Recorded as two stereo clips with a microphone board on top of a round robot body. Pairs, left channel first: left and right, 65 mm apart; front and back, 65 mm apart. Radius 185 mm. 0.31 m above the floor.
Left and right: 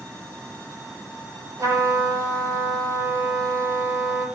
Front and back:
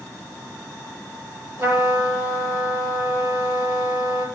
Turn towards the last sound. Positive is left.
turn(degrees=-135)